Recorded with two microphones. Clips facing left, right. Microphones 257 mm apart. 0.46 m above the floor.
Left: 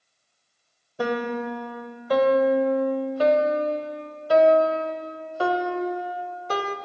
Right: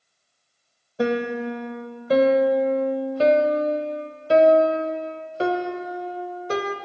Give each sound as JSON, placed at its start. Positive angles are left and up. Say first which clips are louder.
{"t": 1.0, "sound": "a piano", "louder": "right 3 dB", "side_deg": -25, "distance_m": 0.9}